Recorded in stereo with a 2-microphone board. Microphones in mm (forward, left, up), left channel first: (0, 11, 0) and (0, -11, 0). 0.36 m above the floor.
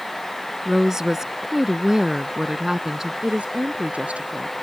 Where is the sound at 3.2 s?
75° right (ahead or behind).